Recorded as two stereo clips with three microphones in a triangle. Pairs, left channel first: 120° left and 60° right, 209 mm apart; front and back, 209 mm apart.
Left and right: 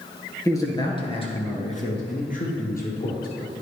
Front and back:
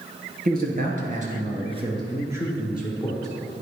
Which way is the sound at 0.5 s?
170° right.